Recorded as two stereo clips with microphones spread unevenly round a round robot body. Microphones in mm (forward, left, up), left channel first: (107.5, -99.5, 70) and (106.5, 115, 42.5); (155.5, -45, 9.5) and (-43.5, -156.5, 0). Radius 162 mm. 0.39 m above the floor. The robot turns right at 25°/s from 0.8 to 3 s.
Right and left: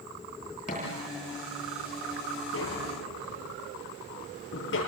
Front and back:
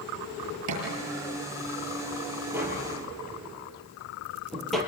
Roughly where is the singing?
No singing in this recording.